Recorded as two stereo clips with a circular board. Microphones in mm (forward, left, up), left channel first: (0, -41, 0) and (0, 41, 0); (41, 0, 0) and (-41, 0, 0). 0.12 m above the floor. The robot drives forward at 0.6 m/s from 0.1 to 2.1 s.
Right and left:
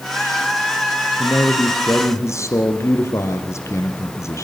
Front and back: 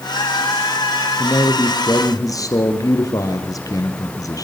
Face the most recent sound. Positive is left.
turn(degrees=-40)